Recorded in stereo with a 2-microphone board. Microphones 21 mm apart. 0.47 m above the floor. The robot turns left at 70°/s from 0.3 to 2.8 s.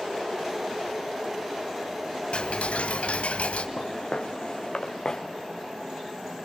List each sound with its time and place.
2.3 s ticking: 120° left, 1.3 m; by 3.7 s 90° left, 1.3 m
3.8 s footsteps: 70° left (ahead or behind), 2 m; by 5.2 s 25° left (ahead or behind), 2 m